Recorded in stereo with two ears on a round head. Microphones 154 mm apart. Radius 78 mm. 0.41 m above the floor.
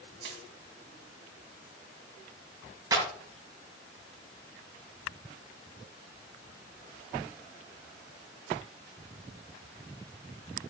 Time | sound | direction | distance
0.2 | crushing | 70° right (ahead or behind) | 2.5 m
2.9 | a clap | 25° right (ahead or behind) | 3.5 m